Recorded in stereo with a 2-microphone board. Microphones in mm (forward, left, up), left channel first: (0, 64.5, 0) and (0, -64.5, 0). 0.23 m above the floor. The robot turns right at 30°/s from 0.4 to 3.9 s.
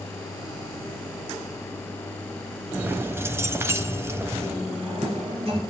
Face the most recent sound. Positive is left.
turn(degrees=-45)  # may be behind; listen again after turning